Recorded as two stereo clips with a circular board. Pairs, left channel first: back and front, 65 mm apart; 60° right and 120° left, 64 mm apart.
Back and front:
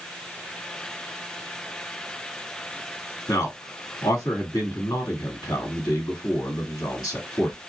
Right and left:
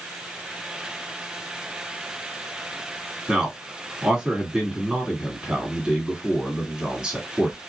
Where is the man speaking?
165° right, 1.9 m.